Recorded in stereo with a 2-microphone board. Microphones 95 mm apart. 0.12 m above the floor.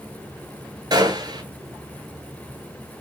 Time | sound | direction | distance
0.9 | a gunshot | 45° right (ahead or behind) | 1.0 m